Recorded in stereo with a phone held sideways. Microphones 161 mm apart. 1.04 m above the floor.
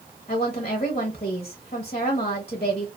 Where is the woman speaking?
45° left (ahead or behind), 0.7 m.